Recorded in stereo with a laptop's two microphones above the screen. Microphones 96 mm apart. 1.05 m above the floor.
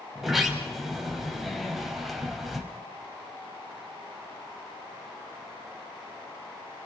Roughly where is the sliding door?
Centre.